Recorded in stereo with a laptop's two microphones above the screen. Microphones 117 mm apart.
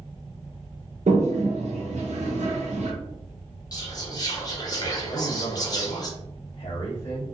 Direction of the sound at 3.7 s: 35° left (ahead or behind).